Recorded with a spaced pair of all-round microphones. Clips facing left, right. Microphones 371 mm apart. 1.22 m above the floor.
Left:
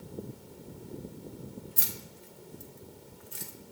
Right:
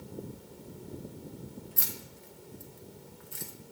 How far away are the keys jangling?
About 0.8 m.